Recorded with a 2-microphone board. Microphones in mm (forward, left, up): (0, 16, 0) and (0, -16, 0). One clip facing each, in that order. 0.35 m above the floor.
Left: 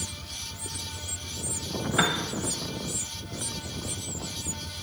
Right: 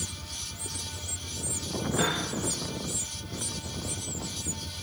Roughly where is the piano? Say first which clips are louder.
Left 4 dB; left.